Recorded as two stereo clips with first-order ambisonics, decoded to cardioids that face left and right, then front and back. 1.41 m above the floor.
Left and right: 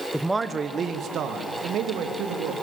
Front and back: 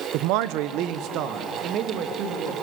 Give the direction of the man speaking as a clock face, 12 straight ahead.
6 o'clock.